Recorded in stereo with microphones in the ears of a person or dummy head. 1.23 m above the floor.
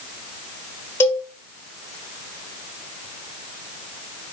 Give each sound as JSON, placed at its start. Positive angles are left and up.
{"t": 1.0, "sound": "a cowbell", "side_deg": 15, "distance_m": 1.0}